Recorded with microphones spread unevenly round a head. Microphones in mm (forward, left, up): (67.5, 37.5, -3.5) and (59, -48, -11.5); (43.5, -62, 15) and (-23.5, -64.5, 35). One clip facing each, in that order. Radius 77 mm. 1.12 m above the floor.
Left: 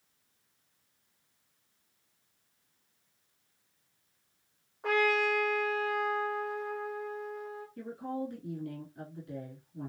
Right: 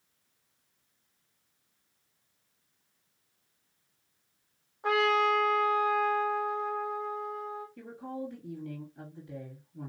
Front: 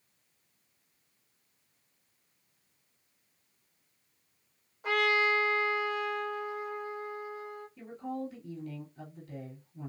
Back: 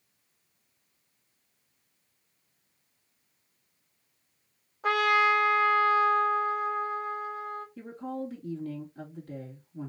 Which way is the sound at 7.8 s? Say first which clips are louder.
Left 2 dB, front 3 dB; 160° left.